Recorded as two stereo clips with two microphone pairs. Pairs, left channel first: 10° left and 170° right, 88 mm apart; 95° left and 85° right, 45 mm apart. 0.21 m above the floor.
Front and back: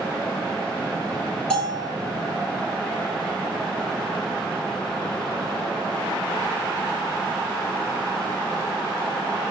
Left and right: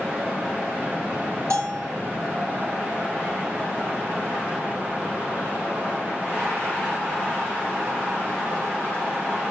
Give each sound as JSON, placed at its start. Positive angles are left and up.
{"t": 1.5, "sound": "a bell", "azimuth_deg": -70, "distance_m": 5.5}